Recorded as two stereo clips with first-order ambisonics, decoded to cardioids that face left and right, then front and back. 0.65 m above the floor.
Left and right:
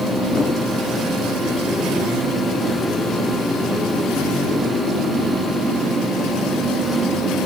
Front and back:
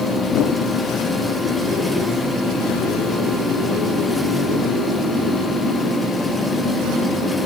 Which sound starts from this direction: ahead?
A whoosh, at 0.3 s.